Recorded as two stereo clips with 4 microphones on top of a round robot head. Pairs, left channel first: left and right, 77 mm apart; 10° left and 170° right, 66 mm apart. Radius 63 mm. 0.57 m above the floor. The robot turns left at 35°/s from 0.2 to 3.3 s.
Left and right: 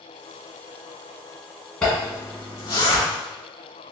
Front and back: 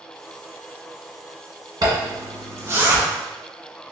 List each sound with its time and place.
1.8 s a zipper: 170° left, 1.7 m; by 3.0 s 125° left, 1.7 m